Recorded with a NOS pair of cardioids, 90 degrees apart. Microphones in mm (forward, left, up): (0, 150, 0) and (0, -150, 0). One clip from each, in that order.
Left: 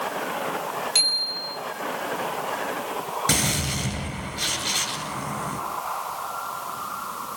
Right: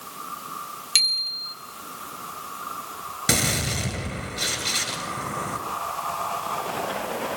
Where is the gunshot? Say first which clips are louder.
Right 3 dB; 25° right, 9.5 m.